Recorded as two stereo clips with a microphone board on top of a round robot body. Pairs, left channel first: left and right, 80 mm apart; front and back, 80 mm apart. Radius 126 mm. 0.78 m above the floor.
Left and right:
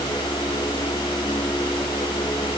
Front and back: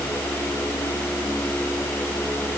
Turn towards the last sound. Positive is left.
No sound to turn to.